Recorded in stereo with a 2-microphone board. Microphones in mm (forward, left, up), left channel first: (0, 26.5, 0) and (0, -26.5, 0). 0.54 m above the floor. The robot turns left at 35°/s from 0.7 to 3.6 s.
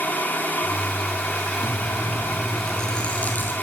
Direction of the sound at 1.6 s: 150° right.